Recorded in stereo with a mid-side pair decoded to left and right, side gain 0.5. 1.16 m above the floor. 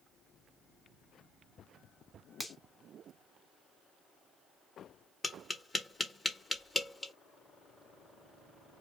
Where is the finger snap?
Straight ahead, 0.9 m.